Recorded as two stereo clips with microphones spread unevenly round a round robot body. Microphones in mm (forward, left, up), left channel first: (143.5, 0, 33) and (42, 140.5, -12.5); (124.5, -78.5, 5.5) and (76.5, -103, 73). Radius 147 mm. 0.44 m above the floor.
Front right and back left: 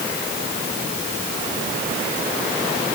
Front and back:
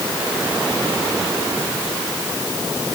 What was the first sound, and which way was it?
Only background noise.